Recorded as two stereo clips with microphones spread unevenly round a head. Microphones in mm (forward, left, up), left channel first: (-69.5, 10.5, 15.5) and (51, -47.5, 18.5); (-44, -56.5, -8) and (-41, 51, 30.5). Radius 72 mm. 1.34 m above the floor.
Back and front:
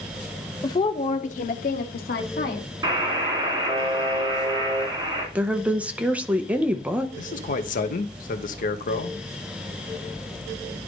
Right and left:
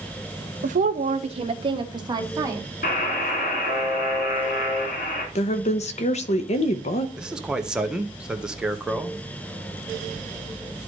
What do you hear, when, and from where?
0.6 s a woman speaking: 90° left, 0.9 m; by 2.7 s 150° left, 2.0 m
2.8 s a buzzer: 80° right, 2 m
5.3 s a woman speaking: 105° right, 1.1 m
7.2 s a man speaking: 175° left, 1.2 m